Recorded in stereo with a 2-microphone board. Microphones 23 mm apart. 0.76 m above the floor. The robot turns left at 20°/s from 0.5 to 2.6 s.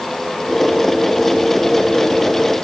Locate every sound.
Only background noise.